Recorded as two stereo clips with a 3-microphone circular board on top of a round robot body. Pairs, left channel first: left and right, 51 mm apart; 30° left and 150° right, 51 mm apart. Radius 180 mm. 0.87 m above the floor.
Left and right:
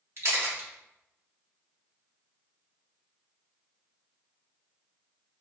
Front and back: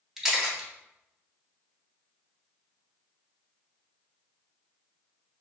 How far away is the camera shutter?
About 1.6 m.